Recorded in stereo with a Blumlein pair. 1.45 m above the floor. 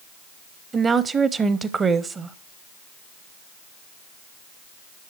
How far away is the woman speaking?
About 0.8 m.